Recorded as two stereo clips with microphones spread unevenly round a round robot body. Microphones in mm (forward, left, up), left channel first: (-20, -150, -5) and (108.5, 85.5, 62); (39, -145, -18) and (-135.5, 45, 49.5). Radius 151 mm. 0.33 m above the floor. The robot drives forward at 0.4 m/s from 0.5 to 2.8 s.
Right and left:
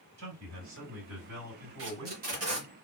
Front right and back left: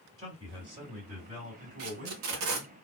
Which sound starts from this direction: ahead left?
A man speaking, at 0.2 s.